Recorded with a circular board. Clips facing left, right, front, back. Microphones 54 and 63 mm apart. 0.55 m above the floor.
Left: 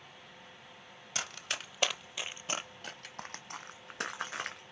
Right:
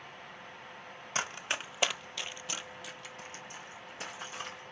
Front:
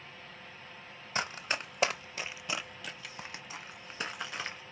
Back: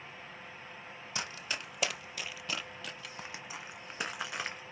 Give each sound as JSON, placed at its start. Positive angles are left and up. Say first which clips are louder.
{"t": 1.1, "sound": "running footsteps", "louder": "right 4 dB, front 5 dB", "azimuth_deg": -45, "distance_m": 1.1}